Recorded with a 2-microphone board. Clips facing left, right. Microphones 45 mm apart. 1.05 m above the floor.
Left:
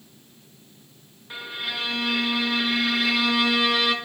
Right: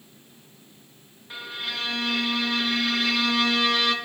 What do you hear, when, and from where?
1.3 s a violin: 5° left (ahead or behind), 0.6 m